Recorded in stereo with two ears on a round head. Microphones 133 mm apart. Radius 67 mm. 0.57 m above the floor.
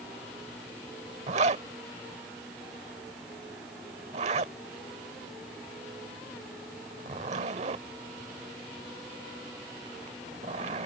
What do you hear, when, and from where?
1.3 s a zipper: 50° right (ahead or behind)